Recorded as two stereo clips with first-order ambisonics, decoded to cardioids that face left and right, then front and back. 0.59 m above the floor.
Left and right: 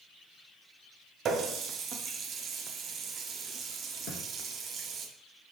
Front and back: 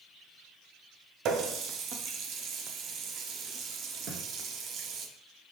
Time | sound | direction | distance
1.2 | a running tap | 145° right | 0.5 m
4.1 | a thud | 135° left | 1.4 m